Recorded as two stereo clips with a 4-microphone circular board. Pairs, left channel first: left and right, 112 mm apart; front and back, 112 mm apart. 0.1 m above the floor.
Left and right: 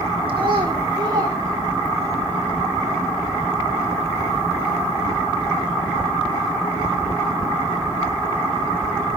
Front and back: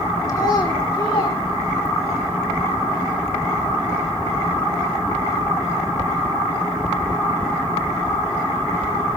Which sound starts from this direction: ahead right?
A child speaking, at 0.3 s.